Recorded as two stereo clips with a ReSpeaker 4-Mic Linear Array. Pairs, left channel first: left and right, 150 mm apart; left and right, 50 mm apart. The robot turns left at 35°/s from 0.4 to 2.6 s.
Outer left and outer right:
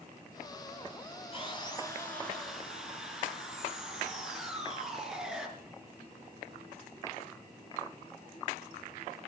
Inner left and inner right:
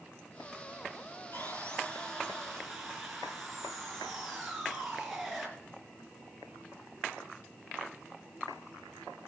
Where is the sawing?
40° left, 3 m; by 5.5 s 5° right, 3 m.